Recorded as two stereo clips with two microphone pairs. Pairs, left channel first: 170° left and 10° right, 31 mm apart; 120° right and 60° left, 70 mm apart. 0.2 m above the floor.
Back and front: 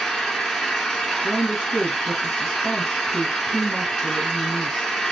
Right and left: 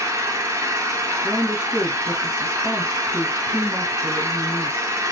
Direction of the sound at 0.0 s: 100° left.